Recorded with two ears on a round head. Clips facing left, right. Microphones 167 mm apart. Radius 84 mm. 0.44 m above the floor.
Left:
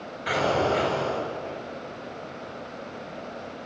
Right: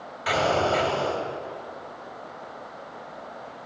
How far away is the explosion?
About 2 m.